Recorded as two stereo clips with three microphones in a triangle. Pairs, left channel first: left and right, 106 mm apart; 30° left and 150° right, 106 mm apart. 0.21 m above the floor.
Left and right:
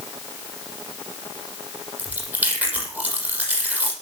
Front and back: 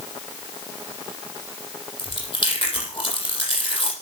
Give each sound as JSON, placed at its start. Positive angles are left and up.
{"t": 2.0, "sound": "chewing", "azimuth_deg": -15, "distance_m": 6.5}